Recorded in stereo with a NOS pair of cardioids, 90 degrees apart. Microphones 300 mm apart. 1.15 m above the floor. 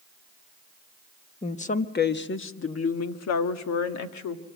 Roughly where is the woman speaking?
Ahead.